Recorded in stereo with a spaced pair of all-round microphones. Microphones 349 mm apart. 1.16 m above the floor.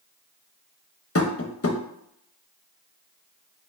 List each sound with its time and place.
1.1 s tapping: 40° left (ahead or behind), 0.6 m